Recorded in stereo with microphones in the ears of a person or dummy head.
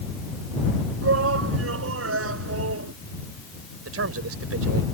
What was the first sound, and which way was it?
A shout, 80° right.